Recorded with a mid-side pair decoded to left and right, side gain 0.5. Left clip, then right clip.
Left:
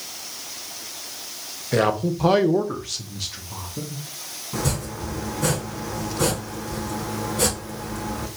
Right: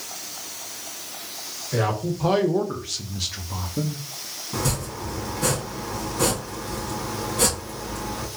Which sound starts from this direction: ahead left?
A man speaking, at 1.7 s.